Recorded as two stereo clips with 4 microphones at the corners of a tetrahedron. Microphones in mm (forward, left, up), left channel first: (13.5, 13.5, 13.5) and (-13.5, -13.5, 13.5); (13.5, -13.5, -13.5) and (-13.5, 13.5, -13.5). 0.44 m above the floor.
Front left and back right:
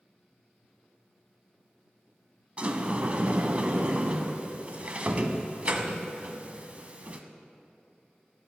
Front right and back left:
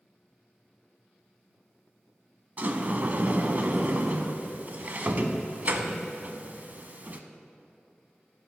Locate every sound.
2.6 s a sliding door: 175° left, 0.5 m